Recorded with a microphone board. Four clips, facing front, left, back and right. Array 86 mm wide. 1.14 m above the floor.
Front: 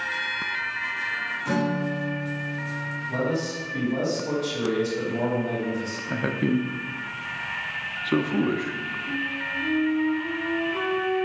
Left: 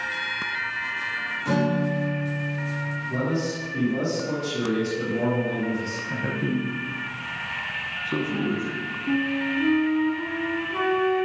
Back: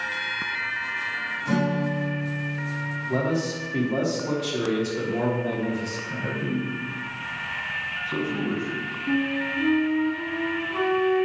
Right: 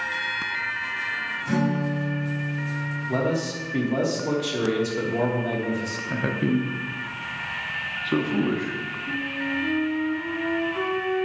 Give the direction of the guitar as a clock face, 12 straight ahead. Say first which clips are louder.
Left 1 dB, back 1 dB; 10 o'clock.